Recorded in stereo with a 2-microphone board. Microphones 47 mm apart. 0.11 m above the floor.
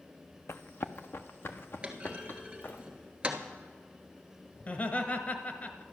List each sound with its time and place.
0.5 s running footsteps: 65° left (ahead or behind), 0.6 m; by 2.8 s 55° left (ahead or behind), 2.5 m
1.8 s a clunk: 25° right (ahead or behind), 1.5 m
4.6 s laughter: 35° left (ahead or behind), 1.4 m